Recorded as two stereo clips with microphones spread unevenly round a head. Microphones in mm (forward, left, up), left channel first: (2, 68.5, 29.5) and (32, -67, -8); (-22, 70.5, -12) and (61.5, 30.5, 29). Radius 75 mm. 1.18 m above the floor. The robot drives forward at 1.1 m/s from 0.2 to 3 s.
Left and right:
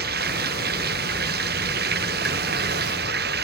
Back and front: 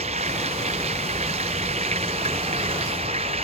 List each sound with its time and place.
0.0 s running water: 70° right; by 3.4 s 75° right